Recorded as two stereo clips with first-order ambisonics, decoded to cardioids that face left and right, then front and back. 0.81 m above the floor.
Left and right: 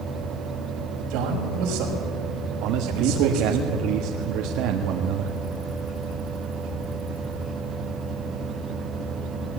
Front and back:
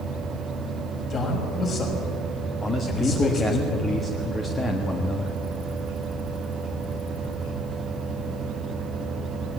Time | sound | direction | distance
1.1 | a man speaking | 65° right | 6 m
2.6 | a man speaking | 75° right | 1.4 m